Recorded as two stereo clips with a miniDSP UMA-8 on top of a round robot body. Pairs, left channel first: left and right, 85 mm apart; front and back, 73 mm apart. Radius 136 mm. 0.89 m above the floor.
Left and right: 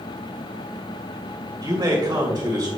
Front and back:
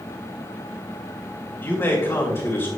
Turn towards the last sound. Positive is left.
turn(degrees=-40)